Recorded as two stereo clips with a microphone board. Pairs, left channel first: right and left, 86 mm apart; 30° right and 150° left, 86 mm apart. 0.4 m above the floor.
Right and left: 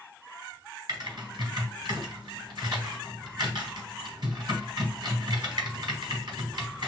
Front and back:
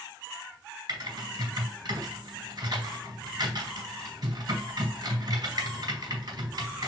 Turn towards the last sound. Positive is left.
turn(degrees=120)